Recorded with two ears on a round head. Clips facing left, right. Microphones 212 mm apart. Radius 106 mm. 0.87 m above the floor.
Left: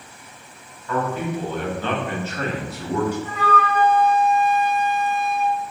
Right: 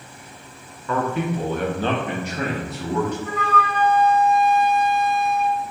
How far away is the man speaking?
About 0.9 m.